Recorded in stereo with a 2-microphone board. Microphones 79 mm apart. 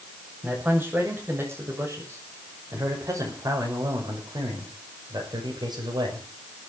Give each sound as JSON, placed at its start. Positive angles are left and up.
{"t": 0.4, "sound": "a man speaking", "side_deg": -20, "distance_m": 6.5}